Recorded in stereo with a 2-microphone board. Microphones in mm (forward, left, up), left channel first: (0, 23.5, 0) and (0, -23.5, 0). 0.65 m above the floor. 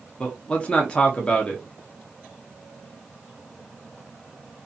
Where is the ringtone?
No ringtone in this recording.